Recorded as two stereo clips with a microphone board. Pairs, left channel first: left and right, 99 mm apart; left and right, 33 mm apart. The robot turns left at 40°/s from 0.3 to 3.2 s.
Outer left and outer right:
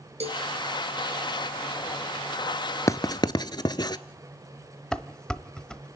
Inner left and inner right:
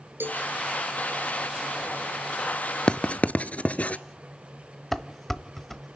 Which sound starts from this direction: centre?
Dishes clattering, at 4.9 s.